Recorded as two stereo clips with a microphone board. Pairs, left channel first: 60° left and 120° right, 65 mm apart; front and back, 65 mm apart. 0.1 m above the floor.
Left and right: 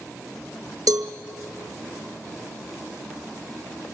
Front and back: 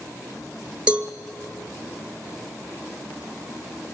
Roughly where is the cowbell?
Right.